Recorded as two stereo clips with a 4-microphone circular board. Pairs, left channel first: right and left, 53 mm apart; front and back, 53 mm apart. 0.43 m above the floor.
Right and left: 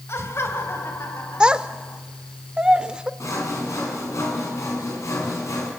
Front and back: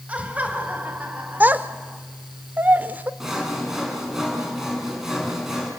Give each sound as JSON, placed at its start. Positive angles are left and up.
{"t": 0.1, "sound": "laughter", "azimuth_deg": -115, "distance_m": 2.5}
{"t": 1.4, "sound": "a child speaking", "azimuth_deg": 150, "distance_m": 0.9}
{"t": 3.2, "sound": "sawing", "azimuth_deg": -95, "distance_m": 5.5}